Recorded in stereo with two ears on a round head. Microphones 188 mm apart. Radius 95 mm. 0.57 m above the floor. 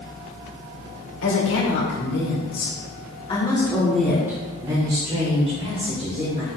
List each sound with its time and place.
1.2 s a woman speaking: 65° left (ahead or behind), 2.0 m; by 6.5 s 40° right (ahead or behind), 2.5 m